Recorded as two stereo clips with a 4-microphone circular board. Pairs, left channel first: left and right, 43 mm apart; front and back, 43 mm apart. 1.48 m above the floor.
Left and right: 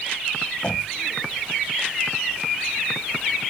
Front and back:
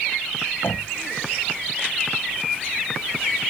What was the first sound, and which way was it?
Knocking, 30° left.